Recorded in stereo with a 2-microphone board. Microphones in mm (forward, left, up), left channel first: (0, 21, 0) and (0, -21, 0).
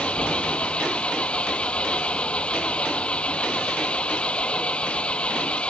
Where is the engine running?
25° left (ahead or behind).